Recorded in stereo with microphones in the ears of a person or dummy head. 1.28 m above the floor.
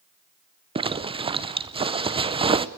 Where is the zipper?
25° right (ahead or behind), 0.6 m.